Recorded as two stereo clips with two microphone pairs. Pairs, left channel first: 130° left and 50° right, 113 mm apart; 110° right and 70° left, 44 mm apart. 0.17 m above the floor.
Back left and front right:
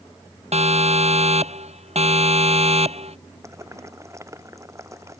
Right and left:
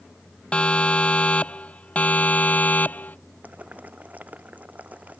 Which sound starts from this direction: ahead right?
A siren, at 0.5 s.